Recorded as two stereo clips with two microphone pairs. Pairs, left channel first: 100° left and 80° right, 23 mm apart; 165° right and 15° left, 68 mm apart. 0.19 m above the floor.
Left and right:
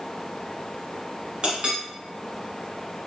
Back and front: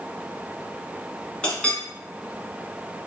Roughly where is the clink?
Right.